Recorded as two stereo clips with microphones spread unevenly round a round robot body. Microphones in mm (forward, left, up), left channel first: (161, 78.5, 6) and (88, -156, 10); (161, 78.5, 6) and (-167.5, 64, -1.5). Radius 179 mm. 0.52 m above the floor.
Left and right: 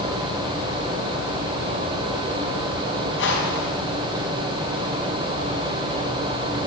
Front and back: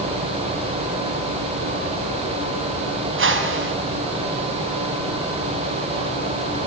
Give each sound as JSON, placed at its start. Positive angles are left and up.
{"t": 3.2, "sound": "a whoosh", "azimuth_deg": 130, "distance_m": 5.0}